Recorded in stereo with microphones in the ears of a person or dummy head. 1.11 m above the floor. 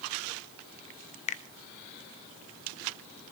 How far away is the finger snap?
About 0.8 m.